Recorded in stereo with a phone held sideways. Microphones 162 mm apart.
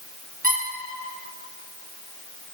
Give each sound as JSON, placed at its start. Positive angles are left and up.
{"t": 0.4, "sound": "a squeak", "side_deg": -55, "distance_m": 1.3}